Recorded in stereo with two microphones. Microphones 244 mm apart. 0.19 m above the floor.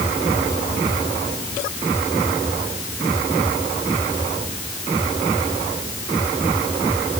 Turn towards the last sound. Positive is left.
No sound to turn to.